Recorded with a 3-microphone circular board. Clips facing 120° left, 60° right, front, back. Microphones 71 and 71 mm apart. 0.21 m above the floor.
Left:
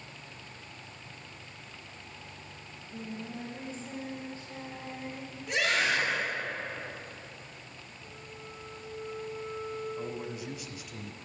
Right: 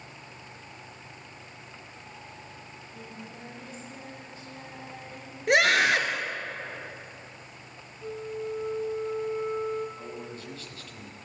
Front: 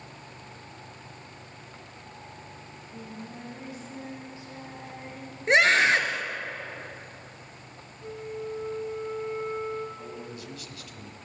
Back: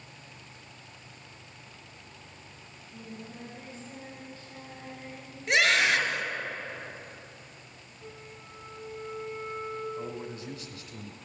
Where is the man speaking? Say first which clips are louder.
Left 2 dB, back 2 dB; straight behind, 1.4 m.